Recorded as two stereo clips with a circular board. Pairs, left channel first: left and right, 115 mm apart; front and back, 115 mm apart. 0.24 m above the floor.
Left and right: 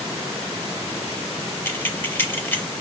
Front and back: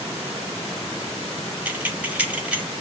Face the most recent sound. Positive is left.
turn(degrees=125)